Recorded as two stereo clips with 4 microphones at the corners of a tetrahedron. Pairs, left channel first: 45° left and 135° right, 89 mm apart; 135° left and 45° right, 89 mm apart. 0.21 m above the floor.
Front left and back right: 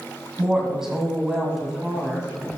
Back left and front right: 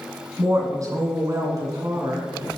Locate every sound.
0.4 s a woman speaking: 55° right, 2 m